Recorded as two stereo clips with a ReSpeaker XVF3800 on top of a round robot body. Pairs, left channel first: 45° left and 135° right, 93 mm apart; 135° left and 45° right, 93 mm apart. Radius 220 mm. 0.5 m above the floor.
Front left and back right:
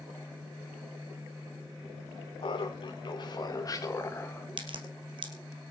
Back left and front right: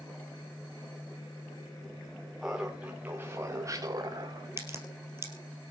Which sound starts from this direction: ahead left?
Laughter, at 2.4 s.